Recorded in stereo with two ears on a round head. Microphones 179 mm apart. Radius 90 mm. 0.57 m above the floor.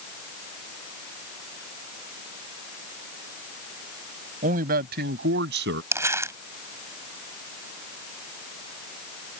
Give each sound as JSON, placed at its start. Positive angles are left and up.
{"t": 4.4, "sound": "a man speaking", "side_deg": -45}
{"t": 5.9, "sound": "crumpling", "side_deg": -15}